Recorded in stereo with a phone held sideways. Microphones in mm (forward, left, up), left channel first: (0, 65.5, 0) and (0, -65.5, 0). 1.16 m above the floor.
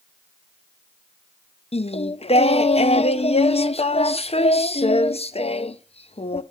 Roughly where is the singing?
Left.